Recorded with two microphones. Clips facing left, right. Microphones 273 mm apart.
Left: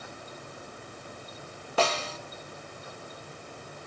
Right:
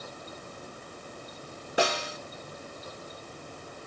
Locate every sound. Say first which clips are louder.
1.8 s a snare drum: even; 15° right (ahead or behind), 1.0 m